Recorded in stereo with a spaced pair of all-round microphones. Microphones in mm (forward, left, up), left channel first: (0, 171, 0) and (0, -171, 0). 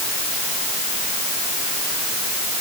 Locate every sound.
Only background noise.